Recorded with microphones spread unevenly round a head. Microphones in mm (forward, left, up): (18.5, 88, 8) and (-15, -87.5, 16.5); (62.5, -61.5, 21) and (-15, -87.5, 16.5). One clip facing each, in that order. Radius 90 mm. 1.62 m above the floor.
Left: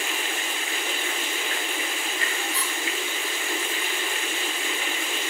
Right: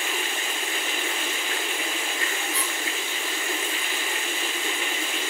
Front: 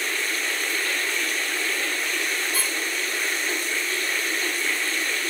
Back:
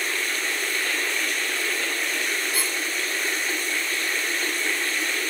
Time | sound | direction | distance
2.5 | a squeak | 90° right | 8 m